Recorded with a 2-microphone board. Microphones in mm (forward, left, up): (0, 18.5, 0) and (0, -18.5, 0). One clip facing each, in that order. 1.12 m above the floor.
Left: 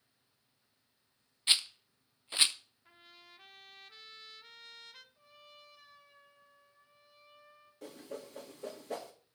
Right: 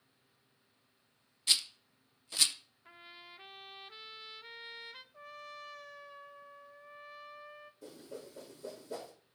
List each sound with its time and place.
1.5 s a rattle: 25° left (ahead or behind), 0.6 m
2.9 s a trumpet: 25° right (ahead or behind), 0.6 m
5.1 s a trumpet: 75° right (ahead or behind), 1.0 m
7.8 s a whoosh: 60° left (ahead or behind), 2.0 m